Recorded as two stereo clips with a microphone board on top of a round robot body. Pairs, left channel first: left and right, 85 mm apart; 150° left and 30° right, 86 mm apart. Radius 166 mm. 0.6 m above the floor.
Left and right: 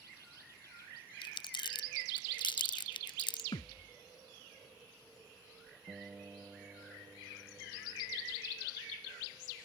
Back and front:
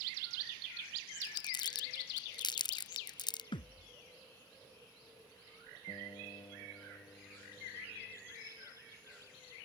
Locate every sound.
1.2 s crumpling: 115° left
3.5 s a thud: 125° left
5.9 s a guitar: 165° right